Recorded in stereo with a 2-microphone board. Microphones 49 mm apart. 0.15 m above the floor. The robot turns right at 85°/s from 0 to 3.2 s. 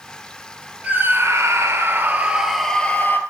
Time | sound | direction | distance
0.8 | a scream | 150° right | 2.5 m